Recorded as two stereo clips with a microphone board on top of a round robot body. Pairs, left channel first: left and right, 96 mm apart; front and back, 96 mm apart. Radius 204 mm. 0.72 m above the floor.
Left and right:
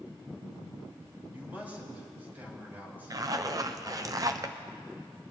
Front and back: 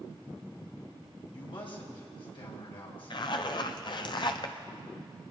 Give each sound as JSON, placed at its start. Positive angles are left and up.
{"t": 1.3, "sound": "a man speaking", "azimuth_deg": -20, "distance_m": 4.5}
{"t": 3.1, "sound": "a zipper", "azimuth_deg": -40, "distance_m": 0.7}